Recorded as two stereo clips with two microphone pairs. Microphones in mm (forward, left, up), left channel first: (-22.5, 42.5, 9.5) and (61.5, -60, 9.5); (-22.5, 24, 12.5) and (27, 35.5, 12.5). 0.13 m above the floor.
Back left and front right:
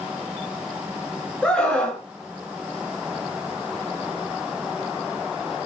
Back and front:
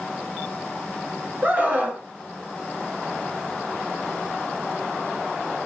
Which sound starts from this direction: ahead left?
A scream, at 1.4 s.